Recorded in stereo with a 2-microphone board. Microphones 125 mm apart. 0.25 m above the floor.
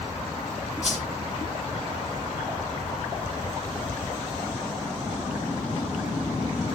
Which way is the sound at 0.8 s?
60° left (ahead or behind).